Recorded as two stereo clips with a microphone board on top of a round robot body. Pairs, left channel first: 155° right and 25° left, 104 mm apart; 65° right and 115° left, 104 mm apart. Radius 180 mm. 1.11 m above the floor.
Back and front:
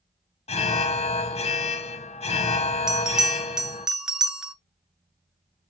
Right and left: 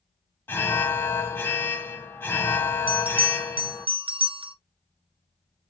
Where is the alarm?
140° right, 0.6 m.